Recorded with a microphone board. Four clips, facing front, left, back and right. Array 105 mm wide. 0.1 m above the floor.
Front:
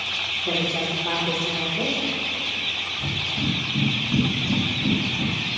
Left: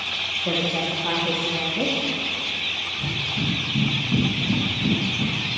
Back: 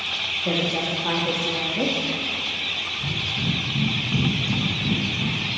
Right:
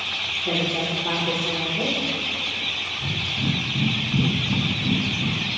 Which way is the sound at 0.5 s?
140° left.